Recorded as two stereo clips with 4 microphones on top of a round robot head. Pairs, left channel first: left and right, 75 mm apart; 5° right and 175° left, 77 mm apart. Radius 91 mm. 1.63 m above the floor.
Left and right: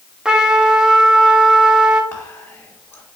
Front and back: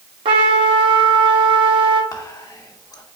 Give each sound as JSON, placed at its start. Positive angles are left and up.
{"t": 0.2, "sound": "a trumpet", "azimuth_deg": -165, "distance_m": 0.6}
{"t": 2.1, "sound": "whispering", "azimuth_deg": 30, "distance_m": 1.0}